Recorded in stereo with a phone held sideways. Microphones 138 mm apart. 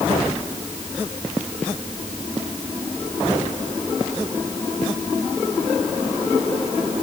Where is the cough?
I don't hear a cough.